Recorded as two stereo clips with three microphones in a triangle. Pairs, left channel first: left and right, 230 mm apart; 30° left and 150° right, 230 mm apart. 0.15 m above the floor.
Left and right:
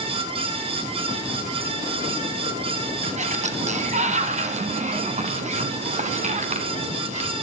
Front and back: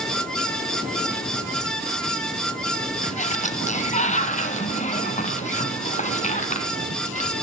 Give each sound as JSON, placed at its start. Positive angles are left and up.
{"t": 3.0, "sound": "a sliding door", "azimuth_deg": -30, "distance_m": 1.4}